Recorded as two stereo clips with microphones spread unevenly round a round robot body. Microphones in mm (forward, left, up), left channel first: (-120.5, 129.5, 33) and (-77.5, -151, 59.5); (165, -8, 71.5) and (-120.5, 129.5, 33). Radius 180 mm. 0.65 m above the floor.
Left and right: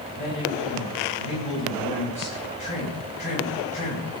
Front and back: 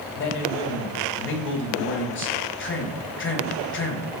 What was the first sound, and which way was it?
A man speaking, 30° left.